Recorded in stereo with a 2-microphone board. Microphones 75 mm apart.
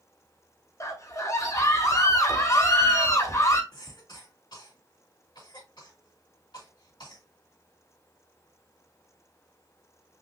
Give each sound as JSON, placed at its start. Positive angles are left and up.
{"t": 0.8, "sound": "a scream", "side_deg": 40, "distance_m": 1.3}
{"t": 3.7, "sound": "a cough", "side_deg": 70, "distance_m": 3.0}